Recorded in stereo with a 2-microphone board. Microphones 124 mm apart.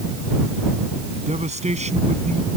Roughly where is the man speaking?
Right.